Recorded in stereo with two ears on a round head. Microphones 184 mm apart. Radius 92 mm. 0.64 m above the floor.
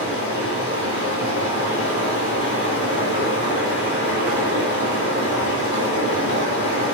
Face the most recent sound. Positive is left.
turn(degrees=65)  # may be behind; listen again after turning